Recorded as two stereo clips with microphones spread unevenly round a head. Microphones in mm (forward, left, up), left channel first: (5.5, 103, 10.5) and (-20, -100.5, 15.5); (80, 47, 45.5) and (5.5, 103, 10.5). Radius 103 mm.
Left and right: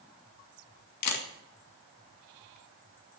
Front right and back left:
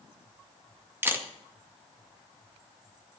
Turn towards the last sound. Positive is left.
turn(degrees=75)